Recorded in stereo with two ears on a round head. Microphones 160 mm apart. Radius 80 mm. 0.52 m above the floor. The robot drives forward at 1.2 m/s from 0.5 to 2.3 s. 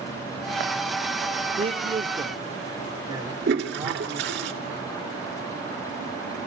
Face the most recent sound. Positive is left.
turn(degrees=-60)  # may be behind; listen again after turning